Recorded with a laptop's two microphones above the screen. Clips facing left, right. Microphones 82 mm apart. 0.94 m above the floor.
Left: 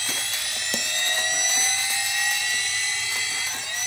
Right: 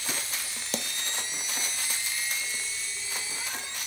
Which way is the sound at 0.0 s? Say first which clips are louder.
Left 4 dB; 85° left.